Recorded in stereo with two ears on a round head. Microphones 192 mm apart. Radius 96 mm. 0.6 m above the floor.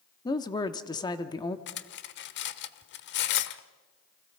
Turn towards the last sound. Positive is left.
turn(degrees=55)  # may be behind; listen again after turning